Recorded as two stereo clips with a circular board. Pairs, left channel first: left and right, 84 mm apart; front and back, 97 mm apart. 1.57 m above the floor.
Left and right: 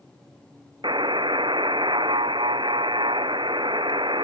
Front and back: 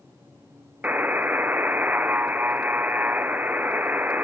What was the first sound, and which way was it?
A buzzer, 105° right.